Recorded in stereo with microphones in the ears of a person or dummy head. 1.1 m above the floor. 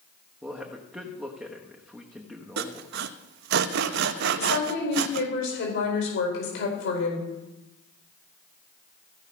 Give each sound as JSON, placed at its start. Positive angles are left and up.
{"t": 0.4, "sound": "a man speaking", "side_deg": -5, "distance_m": 1.1}
{"t": 2.6, "sound": "sawing", "side_deg": -70, "distance_m": 0.6}
{"t": 4.4, "sound": "a woman speaking", "side_deg": 85, "distance_m": 4.0}